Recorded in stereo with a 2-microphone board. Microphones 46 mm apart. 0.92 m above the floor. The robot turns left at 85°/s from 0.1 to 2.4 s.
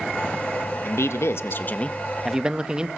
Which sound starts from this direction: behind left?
A man speaking, at 0.8 s.